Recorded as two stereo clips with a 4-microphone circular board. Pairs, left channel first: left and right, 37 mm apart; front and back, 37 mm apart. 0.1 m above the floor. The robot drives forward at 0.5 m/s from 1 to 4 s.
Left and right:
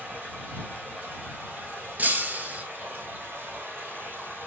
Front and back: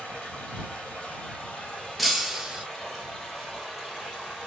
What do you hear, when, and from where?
0.0 s running water: 55° right, 2.5 m; by 4.5 s 100° right, 2 m
2.0 s breaking glass: 90° right, 0.8 m; by 2.6 s 120° right, 0.8 m